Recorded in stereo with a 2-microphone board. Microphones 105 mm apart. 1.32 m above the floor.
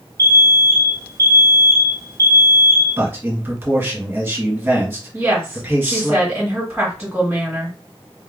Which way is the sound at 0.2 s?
35° right (ahead or behind).